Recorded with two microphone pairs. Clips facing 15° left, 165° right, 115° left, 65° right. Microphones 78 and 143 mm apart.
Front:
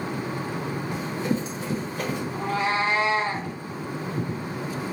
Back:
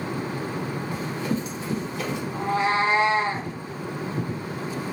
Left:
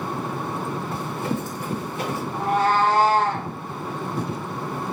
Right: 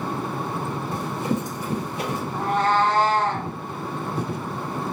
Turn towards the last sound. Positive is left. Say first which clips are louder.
# back 3 dB, left 1 dB
turn(degrees=-170)